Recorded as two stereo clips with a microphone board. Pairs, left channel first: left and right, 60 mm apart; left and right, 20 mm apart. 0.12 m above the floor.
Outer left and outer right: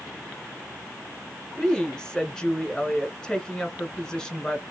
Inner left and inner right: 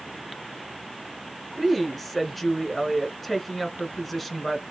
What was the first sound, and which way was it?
A woman speaking, 10° left (ahead or behind).